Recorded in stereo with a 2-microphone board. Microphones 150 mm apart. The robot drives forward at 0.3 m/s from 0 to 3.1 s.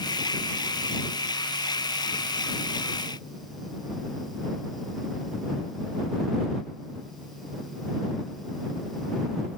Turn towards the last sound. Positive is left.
No sound to turn to.